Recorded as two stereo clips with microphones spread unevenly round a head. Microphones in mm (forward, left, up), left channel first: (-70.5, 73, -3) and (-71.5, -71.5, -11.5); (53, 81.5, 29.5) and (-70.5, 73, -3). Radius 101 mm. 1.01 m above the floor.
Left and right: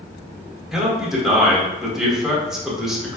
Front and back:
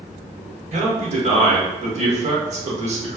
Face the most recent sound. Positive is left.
turn(degrees=-175)